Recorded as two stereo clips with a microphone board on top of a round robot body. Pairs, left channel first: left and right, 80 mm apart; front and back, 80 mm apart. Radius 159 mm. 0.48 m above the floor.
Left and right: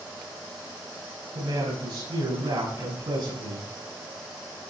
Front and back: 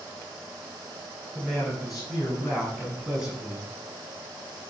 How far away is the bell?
I don't hear a bell.